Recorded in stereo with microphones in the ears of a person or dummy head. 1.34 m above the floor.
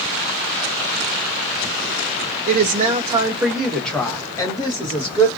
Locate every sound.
2.5 s a woman speaking: 50° right (ahead or behind), 0.8 m; by 5.3 s 30° left (ahead or behind), 1.6 m